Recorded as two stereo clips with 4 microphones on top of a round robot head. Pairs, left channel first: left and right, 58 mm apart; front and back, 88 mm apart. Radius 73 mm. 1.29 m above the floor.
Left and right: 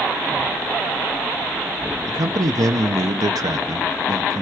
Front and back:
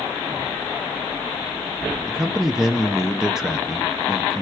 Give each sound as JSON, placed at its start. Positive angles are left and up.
{"t": 2.1, "sound": "a man speaking", "azimuth_deg": -95, "distance_m": 0.6}